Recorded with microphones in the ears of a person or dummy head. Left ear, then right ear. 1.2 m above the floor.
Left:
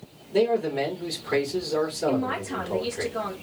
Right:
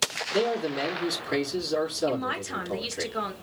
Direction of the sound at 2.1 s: 35° right (ahead or behind).